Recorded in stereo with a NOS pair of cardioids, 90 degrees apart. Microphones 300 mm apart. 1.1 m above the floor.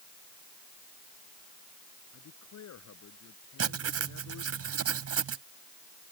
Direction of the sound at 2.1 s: 60° left.